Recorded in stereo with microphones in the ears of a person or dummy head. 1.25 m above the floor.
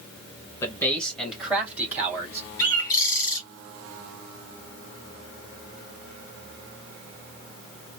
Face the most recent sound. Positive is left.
turn(degrees=15)  # may be behind; listen again after turning